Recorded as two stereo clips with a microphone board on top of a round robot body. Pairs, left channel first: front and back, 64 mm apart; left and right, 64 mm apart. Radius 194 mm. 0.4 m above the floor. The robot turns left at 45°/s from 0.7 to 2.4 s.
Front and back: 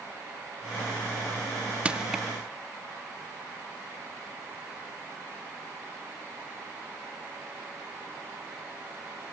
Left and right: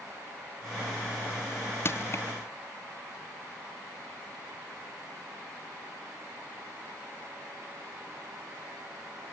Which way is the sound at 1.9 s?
115° left.